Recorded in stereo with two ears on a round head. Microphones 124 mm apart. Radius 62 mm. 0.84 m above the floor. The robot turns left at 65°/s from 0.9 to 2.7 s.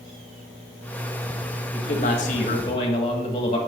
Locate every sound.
1.7 s a man speaking: 115° left, 1.8 m; by 3.6 s 50° left, 1.8 m